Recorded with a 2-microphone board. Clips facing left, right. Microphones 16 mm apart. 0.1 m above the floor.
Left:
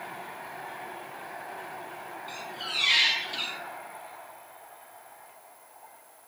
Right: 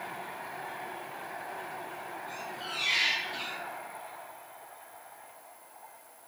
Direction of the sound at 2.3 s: 60° left (ahead or behind).